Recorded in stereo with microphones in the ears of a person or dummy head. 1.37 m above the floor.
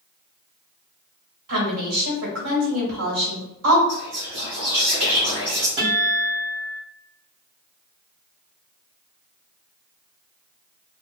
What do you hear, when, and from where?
1.5 s a woman speaking: 75° right (ahead or behind), 1.5 m
3.9 s whispering: 55° right (ahead or behind), 0.7 m
5.8 s a guitar: 35° right (ahead or behind), 1.6 m